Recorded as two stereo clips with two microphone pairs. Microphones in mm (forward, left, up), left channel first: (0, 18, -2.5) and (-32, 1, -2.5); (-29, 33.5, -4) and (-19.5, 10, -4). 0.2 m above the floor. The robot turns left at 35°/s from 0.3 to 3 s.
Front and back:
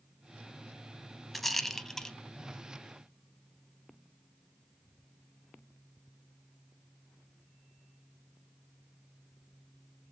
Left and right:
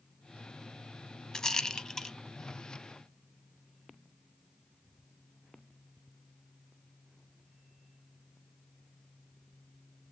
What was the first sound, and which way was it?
A rattle, 115° left.